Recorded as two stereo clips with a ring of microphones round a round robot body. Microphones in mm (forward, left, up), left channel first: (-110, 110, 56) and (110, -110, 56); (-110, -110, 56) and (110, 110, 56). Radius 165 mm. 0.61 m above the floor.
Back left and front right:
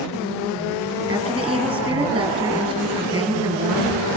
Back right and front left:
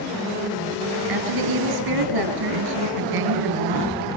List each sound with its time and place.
1.1 s a woman speaking: 30° left, 5 m